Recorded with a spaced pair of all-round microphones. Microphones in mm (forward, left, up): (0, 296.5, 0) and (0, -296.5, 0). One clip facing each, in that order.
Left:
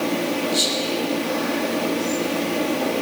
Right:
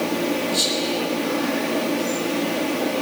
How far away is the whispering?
About 8 m.